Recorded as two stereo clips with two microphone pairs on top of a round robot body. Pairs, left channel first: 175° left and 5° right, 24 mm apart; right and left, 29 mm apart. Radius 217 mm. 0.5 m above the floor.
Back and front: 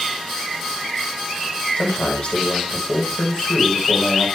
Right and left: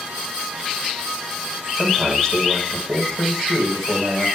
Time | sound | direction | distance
1.8 | a man speaking | 165° right | 4.5 m